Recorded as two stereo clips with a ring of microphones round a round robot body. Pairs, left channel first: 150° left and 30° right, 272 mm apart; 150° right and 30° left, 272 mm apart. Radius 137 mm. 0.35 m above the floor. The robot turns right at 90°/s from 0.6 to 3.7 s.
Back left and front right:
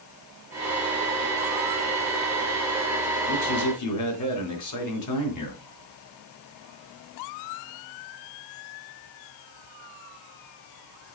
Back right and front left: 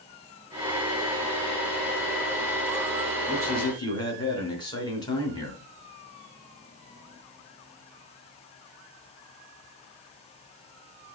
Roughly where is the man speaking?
Left.